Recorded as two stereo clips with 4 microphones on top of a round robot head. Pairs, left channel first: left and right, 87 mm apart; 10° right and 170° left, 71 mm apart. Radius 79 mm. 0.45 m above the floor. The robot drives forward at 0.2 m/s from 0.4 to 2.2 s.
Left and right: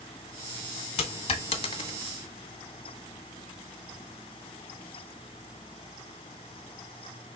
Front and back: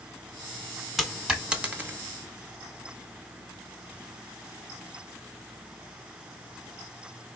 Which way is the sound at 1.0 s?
80° left.